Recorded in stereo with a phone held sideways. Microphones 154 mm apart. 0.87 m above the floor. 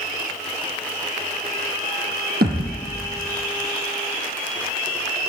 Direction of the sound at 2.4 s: 80° right.